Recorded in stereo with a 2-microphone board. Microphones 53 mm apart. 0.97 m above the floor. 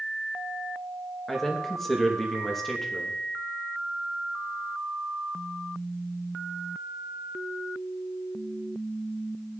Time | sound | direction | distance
1.3 | a man speaking | 5° left (ahead or behind) | 1.0 m